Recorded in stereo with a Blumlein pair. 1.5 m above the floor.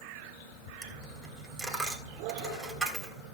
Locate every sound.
0.8 s a dropped coin: 10° right, 3.5 m